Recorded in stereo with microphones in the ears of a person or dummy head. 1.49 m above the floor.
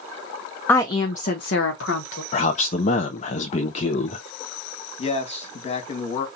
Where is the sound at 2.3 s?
45° left (ahead or behind), 0.5 m.